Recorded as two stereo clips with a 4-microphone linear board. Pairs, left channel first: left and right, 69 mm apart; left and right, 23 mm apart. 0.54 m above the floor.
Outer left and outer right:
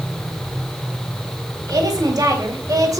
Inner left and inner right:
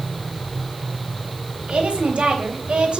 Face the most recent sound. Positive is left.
turn(degrees=-60)  # may be behind; listen again after turning